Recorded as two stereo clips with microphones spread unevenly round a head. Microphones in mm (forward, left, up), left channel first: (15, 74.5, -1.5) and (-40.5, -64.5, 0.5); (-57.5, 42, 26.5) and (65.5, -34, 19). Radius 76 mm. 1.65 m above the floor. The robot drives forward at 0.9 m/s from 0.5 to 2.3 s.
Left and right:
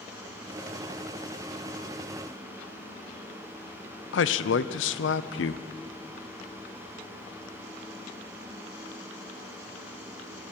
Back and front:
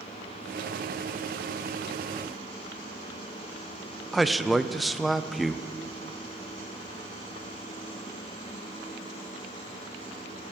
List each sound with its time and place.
4.1 s a man speaking: 55° left, 0.6 m